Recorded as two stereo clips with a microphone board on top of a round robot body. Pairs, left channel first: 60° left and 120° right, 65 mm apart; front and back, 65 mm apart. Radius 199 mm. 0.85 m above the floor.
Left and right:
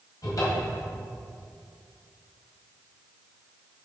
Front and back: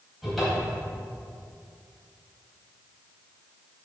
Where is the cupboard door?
95° left, 2.5 m.